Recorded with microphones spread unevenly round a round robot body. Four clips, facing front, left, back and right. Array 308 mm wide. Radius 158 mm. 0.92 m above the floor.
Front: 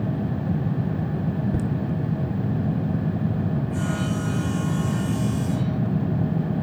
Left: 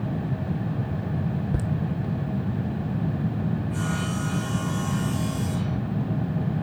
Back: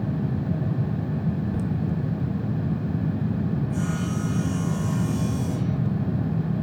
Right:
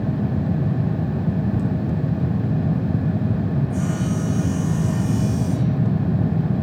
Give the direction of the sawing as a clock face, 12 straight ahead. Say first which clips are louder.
Right 5 dB, front 1 dB; 6 o'clock.